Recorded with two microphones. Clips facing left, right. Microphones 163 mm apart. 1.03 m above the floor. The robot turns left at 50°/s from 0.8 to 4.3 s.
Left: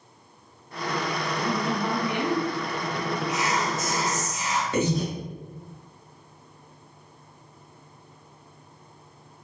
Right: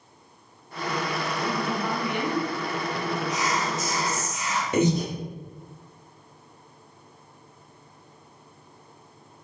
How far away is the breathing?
About 0.7 m.